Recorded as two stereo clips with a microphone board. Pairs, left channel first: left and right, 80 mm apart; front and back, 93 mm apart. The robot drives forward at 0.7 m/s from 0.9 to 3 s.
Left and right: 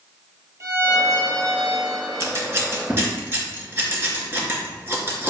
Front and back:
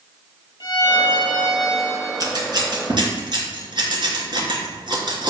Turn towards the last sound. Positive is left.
turn(degrees=-150)